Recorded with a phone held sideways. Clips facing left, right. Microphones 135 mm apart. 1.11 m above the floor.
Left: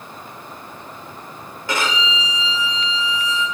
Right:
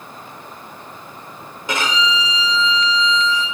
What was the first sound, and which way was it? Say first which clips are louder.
A violin: right 2 dB; 20° right (ahead or behind).